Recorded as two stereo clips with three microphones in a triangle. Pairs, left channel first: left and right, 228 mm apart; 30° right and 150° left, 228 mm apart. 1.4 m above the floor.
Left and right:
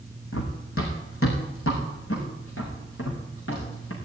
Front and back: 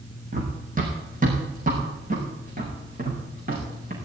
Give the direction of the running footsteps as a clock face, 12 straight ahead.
9 o'clock.